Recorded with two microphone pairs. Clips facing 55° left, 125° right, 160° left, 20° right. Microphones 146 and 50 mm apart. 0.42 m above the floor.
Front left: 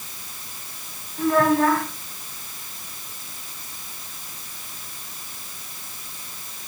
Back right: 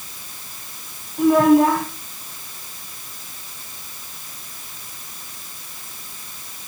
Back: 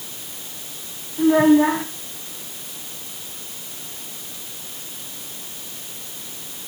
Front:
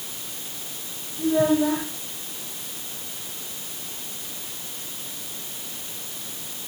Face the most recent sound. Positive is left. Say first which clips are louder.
# back right 6 dB, back 6 dB
turn(degrees=160)